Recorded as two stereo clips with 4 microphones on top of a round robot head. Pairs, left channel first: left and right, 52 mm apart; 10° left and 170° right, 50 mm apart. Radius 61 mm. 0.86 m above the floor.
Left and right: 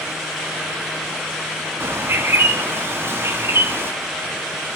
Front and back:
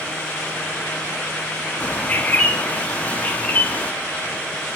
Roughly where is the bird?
Ahead right.